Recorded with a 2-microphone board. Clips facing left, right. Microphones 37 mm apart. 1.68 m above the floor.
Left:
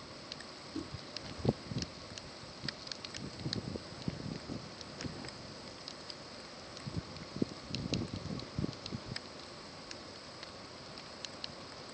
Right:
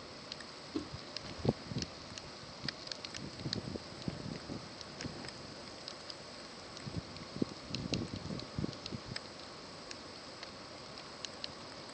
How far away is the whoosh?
About 1.4 m.